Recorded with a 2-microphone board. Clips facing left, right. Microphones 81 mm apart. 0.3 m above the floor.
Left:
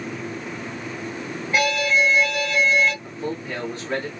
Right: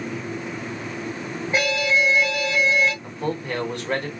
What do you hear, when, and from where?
1.5 s an alarm: 25° right (ahead or behind), 1.6 m
3.0 s a man speaking: 60° right (ahead or behind), 2.5 m